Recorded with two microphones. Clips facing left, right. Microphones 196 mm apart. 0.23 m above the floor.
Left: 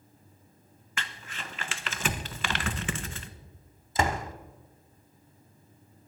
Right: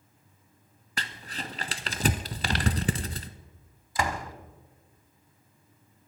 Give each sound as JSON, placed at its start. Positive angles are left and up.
{"t": 1.0, "sound": "crumpling", "side_deg": -40, "distance_m": 0.7}
{"t": 4.0, "sound": "a door slam", "side_deg": 25, "distance_m": 0.9}